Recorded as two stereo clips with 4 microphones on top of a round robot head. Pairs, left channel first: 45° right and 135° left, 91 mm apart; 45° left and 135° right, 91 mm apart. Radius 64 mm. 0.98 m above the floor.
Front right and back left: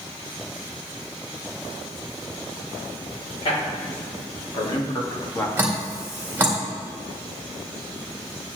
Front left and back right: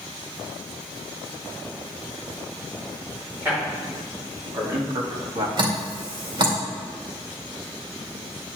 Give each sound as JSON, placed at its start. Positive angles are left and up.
{"t": 3.4, "sound": "a man speaking", "azimuth_deg": -65, "distance_m": 4.0}
{"t": 5.6, "sound": "dripping", "azimuth_deg": -160, "distance_m": 2.0}